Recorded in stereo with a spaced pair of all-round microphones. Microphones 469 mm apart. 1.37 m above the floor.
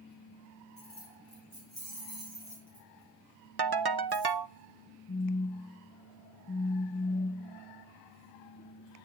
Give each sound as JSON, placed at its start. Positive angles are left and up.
{"t": 0.8, "sound": "keys jangling", "side_deg": 50, "distance_m": 5.5}
{"t": 3.6, "sound": "a ringtone", "side_deg": -60, "distance_m": 0.7}
{"t": 5.1, "sound": "a phone buzzing", "side_deg": 30, "distance_m": 1.0}